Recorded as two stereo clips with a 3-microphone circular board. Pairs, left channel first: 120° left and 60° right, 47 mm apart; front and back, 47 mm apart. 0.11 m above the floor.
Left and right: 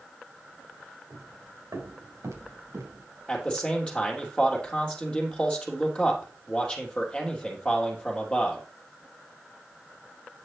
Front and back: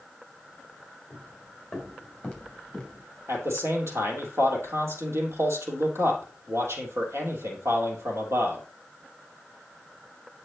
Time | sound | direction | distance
1.1 | footsteps | 95° right | 5.5 m
3.3 | a man speaking | 170° right | 3 m